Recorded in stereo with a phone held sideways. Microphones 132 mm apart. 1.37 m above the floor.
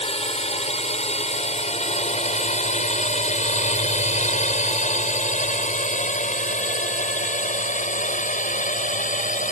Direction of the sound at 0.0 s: 50° left (ahead or behind).